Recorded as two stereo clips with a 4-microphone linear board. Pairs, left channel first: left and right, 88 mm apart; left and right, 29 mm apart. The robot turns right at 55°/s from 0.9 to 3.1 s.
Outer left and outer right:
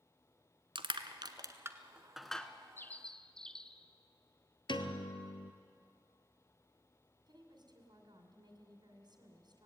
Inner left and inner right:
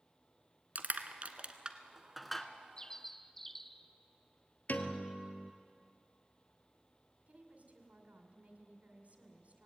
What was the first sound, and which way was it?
Crushing, 70° right (ahead or behind).